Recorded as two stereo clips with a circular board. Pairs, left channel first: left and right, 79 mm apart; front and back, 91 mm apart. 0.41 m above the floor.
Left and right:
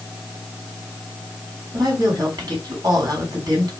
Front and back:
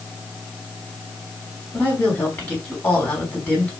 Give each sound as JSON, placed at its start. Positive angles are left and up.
{"t": 1.7, "sound": "a woman speaking", "azimuth_deg": -65, "distance_m": 2.5}